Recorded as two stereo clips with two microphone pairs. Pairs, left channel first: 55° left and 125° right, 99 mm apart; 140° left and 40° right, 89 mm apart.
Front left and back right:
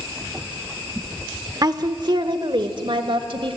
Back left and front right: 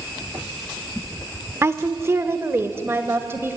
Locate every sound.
1.6 s a woman speaking: 90° right, 1.1 m; by 3.6 s 105° right, 2.5 m